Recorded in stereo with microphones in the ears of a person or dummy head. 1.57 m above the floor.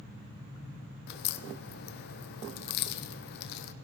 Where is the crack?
65° left (ahead or behind), 0.6 m.